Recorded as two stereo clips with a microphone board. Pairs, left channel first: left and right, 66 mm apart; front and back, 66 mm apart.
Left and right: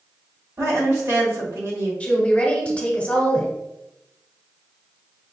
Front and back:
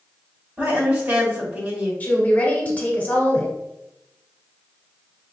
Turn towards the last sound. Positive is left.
turn(degrees=35)